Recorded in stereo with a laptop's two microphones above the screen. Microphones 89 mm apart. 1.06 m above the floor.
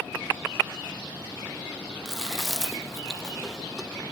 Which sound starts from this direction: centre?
Chewing, at 2.0 s.